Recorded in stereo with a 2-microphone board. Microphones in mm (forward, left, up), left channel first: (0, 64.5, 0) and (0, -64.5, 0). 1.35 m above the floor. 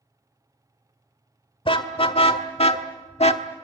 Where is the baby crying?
No baby crying in this recording.